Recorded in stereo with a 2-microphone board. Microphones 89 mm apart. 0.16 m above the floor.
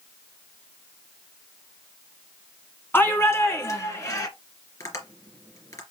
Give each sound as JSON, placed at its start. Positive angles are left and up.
{"t": 2.9, "sound": "a shout", "side_deg": 20, "distance_m": 1.5}
{"t": 4.8, "sound": "tapping", "side_deg": 40, "distance_m": 3.0}